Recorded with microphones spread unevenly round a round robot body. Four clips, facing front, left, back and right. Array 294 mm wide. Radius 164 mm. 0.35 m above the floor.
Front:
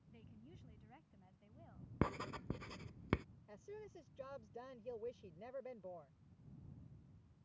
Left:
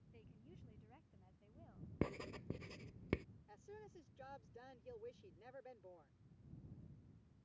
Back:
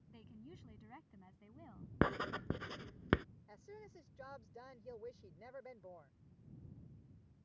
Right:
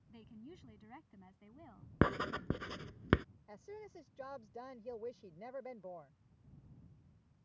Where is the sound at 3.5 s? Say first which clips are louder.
Right 6 dB, front 6 dB; 70° right.